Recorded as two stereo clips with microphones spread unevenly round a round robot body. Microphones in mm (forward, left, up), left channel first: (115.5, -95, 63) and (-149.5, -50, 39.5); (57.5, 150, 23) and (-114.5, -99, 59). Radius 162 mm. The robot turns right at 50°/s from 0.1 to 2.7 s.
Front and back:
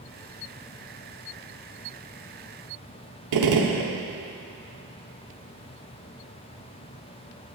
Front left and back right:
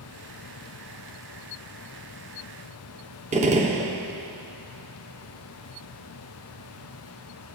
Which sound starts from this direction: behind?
A gunshot, at 3.3 s.